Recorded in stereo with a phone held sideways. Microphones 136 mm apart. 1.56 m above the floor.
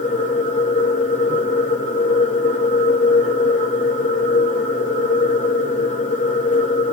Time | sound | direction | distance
0.0 | a machine running | 60° left (ahead or behind) | 3 m